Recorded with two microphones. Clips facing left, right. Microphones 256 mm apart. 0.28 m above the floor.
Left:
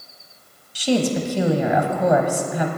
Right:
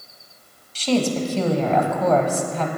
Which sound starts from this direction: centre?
A woman speaking, at 0.8 s.